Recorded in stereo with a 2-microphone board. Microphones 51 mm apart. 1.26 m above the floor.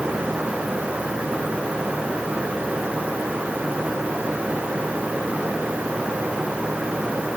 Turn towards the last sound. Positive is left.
No sound to turn to.